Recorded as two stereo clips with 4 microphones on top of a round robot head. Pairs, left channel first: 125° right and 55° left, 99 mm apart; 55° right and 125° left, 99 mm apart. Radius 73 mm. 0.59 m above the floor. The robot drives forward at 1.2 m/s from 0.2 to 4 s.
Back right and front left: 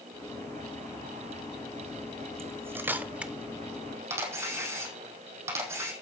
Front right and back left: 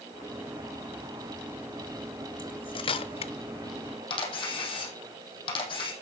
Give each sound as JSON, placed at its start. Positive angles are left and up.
{"t": 2.4, "sound": "cutlery clinking", "azimuth_deg": -10, "distance_m": 1.8}
{"t": 4.1, "sound": "a camera shutter", "azimuth_deg": -10, "distance_m": 4.5}